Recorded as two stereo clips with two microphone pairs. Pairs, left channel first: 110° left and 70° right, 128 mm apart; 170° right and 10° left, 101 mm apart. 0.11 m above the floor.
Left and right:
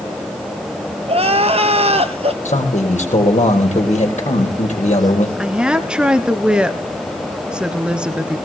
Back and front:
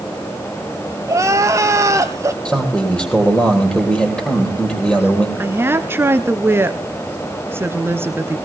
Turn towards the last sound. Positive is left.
turn(degrees=10)